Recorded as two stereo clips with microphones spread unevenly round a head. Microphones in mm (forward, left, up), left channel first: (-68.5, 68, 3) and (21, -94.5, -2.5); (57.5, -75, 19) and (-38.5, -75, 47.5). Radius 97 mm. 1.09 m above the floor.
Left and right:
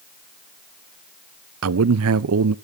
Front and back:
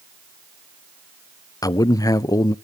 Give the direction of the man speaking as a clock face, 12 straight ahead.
2 o'clock.